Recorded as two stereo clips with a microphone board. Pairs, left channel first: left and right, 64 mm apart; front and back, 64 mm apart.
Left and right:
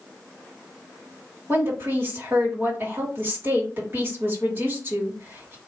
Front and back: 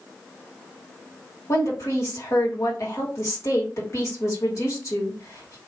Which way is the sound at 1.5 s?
40° right.